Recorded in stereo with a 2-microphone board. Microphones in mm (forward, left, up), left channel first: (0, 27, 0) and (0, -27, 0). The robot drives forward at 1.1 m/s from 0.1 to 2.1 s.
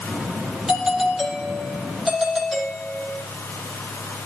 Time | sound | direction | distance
0.7 | a doorbell | 5° right (ahead or behind) | 4 m